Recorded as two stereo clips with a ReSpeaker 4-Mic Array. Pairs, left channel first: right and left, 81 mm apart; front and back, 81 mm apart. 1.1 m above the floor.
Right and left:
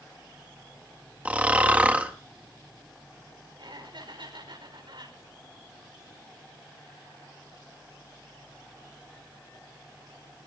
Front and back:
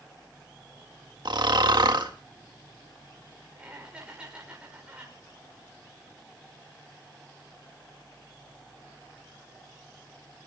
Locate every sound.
1.2 s snoring: 160° left, 2 m
3.6 s laughter: 105° left, 4.5 m